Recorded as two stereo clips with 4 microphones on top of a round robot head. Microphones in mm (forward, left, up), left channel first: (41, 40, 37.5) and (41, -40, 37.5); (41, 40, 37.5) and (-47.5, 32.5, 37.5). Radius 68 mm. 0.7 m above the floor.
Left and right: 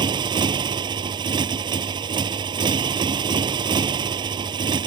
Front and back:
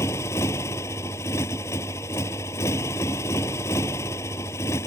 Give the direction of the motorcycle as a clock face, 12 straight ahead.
2 o'clock.